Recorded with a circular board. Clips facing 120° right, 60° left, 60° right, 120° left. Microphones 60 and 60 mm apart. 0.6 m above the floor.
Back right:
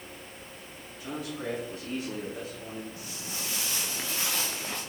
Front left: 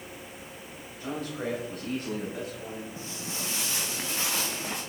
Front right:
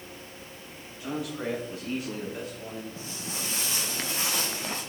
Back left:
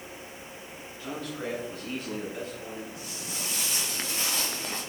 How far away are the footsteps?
About 2.5 m.